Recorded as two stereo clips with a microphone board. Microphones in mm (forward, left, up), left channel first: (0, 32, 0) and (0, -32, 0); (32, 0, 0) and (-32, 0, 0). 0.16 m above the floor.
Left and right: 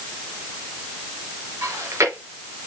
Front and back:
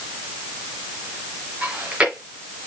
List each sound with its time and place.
1.6 s chewing: 115° right, 3.5 m